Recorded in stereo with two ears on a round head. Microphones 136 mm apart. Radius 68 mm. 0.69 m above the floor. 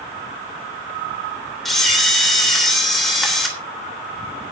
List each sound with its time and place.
1.6 s a camera shutter: centre (ahead or behind), 3 m